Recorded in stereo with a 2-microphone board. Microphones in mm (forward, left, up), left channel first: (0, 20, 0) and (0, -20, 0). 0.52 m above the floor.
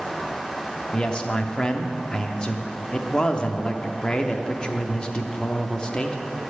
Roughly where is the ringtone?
I don't hear a ringtone.